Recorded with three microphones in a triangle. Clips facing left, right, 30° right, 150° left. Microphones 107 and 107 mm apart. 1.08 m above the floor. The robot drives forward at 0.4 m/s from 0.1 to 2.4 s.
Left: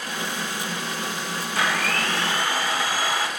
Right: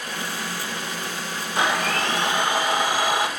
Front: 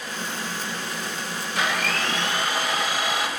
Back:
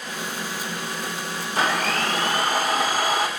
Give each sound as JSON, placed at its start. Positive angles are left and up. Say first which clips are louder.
{"t": 1.6, "sound": "a blender", "louder": "right 3 dB, back 3 dB", "azimuth_deg": -160, "distance_m": 2.5}